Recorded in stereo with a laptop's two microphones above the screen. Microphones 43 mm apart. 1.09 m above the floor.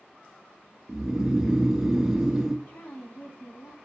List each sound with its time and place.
0.9 s snoring: 15° right (ahead or behind), 0.5 m
2.7 s a woman speaking: 50° left (ahead or behind), 2.5 m